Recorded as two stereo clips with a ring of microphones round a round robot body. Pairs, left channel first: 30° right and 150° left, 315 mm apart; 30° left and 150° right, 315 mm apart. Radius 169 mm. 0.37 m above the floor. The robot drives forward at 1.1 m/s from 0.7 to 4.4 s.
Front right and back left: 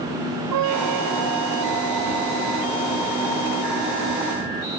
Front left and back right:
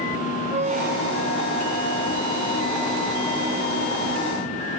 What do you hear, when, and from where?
0.5 s a squeak: 145° left, 0.6 m; by 3.9 s 175° left, 4 m